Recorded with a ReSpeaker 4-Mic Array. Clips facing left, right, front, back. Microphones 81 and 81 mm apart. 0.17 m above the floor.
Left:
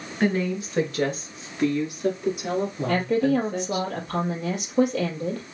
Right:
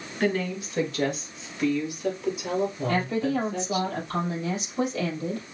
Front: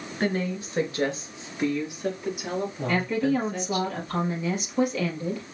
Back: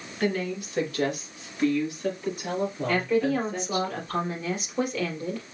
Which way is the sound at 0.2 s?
40° left.